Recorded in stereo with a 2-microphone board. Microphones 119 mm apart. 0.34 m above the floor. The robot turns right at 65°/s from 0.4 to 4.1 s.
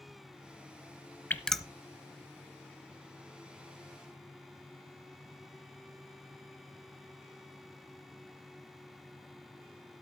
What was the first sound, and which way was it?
Dripping, 15° left (ahead or behind).